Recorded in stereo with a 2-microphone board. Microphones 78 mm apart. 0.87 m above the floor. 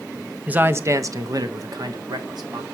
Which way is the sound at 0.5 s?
15° right (ahead or behind).